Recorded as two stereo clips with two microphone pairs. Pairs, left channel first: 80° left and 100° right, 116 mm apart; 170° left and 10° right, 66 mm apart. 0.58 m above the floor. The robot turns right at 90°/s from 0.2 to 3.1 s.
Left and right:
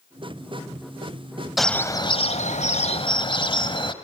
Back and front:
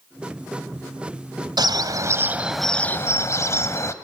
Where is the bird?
10° right, 1.2 m; by 3.9 s 125° left, 1.2 m.